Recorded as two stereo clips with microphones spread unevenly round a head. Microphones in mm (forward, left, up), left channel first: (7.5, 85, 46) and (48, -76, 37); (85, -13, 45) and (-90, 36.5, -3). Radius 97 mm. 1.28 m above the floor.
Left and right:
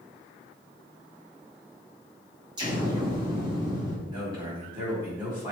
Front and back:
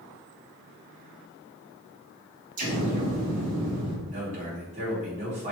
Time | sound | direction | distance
2.6 | an explosion | 145° right | 1.7 m
4.1 | a man speaking | 145° right | 3 m